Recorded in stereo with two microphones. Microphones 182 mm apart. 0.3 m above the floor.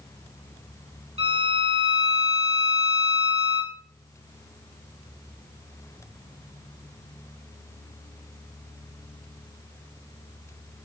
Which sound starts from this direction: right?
A violin, at 1.2 s.